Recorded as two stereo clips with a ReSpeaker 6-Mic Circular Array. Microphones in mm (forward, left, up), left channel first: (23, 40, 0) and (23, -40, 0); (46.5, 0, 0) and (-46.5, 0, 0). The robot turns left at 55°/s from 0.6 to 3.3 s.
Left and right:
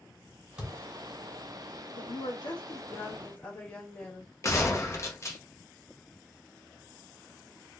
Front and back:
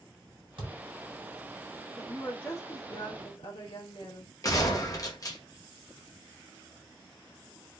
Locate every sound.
0.6 s a thud: 170° right, 1.8 m; by 0.8 s straight behind, 1.8 m
2.0 s a woman speaking: 90° left, 1.3 m; by 4.3 s 20° left, 1.3 m
4.4 s a gunshot: 45° left, 0.7 m